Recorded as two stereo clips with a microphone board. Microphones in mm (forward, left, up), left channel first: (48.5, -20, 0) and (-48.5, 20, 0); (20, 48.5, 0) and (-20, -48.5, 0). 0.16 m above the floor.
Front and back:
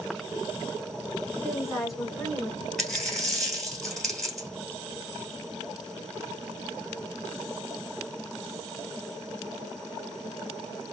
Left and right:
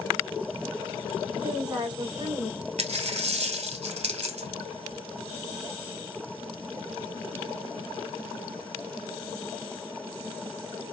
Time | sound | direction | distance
1.4 | a woman speaking | 125° right | 1.5 m
2.8 | a dropped coin | 105° right | 1.5 m